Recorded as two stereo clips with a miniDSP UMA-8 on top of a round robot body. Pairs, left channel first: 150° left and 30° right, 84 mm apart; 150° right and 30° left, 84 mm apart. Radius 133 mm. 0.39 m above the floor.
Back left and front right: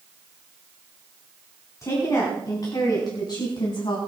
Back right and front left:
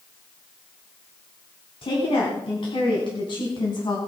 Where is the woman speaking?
155° right, 4 m; by 4.0 s 175° left, 3.5 m.